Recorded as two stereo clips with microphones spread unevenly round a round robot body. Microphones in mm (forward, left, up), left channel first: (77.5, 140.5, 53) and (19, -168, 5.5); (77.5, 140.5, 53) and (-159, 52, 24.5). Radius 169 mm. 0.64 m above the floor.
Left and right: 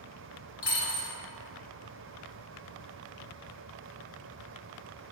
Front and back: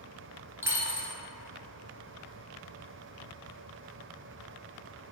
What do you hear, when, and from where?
0.6 s a dropped coin: 115° left, 1.0 m